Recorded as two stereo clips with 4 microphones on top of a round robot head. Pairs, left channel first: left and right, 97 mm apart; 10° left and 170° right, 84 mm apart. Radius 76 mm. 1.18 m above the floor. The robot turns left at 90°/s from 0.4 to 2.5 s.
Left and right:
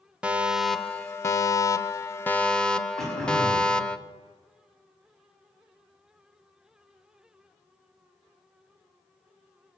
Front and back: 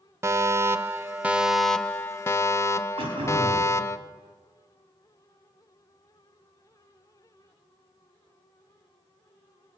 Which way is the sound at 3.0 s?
175° left.